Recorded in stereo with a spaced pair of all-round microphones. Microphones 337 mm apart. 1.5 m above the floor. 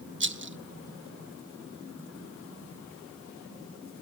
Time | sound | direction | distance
0.2 | a rattle | 35° right (ahead or behind) | 0.7 m